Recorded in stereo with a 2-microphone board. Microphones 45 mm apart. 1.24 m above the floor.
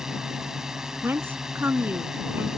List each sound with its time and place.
0.0 s a drone: 15° right (ahead or behind)
1.0 s a woman speaking: 55° right (ahead or behind)